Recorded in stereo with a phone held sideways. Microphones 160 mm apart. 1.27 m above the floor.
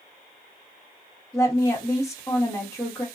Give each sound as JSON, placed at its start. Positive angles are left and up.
{"t": 1.3, "sound": "a woman speaking", "side_deg": 20, "distance_m": 1.6}